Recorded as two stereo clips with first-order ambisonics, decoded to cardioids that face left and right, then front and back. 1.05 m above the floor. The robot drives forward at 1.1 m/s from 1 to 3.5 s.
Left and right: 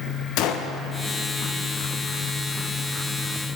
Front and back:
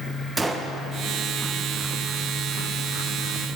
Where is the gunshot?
100° left, 0.5 m.